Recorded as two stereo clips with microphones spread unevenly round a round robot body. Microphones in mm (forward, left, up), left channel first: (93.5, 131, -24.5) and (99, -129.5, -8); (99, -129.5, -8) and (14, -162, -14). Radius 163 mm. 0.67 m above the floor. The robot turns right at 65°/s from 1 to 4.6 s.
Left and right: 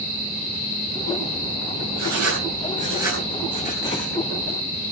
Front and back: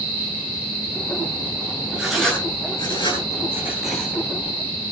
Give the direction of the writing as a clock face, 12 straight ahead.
3 o'clock.